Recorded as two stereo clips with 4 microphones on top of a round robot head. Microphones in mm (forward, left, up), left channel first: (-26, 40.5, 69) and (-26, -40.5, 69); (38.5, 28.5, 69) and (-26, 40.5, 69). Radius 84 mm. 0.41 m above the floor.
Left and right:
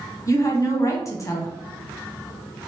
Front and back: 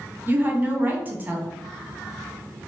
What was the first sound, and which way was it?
A woman speaking, 120° left.